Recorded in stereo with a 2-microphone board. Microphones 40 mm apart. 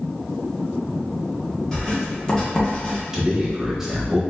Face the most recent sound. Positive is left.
turn(degrees=-10)  # may be behind; listen again after turning